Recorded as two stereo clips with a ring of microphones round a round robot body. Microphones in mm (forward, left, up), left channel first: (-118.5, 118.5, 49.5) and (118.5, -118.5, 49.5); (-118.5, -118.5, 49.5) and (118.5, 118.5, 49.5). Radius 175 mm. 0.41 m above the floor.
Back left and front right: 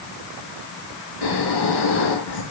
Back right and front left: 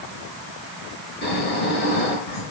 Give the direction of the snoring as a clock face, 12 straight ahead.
7 o'clock.